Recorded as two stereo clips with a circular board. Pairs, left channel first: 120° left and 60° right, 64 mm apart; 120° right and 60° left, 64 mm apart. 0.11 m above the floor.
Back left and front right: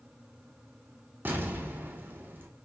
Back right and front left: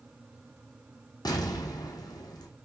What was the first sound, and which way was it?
An explosion, 120° right.